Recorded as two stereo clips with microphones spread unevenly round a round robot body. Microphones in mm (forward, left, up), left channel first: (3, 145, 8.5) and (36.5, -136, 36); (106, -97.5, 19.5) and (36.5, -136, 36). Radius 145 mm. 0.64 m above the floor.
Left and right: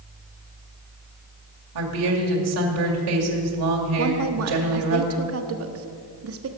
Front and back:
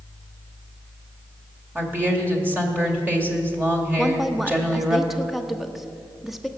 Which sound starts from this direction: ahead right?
A woman speaking, at 4.0 s.